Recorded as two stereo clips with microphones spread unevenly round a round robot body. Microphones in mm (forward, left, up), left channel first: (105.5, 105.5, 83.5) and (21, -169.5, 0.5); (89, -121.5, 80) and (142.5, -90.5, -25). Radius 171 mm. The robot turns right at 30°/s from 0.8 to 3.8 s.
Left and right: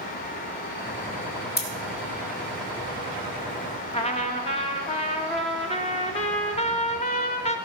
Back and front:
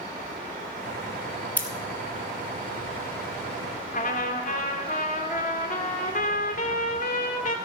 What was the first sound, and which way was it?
Scissors, 5° left.